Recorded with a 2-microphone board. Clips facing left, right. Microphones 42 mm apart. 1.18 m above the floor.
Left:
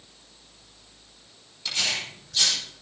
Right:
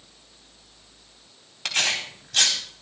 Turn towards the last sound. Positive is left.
turn(degrees=-70)  # may be behind; listen again after turning